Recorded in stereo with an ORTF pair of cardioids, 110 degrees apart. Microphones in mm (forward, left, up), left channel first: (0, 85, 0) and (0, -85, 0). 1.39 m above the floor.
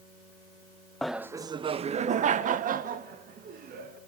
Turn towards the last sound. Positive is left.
turn(degrees=-60)